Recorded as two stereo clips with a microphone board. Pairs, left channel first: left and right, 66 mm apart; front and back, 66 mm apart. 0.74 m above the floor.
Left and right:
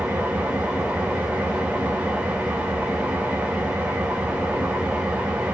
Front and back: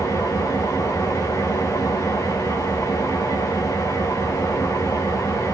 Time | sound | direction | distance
0.0 | an engine running | 20° right | 2.5 m